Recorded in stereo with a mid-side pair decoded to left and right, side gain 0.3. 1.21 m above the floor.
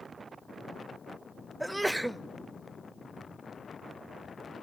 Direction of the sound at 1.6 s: 15° right.